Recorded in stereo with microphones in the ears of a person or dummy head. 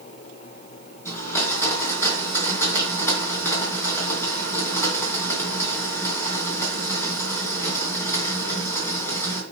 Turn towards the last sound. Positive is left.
turn(degrees=15)  # may be behind; listen again after turning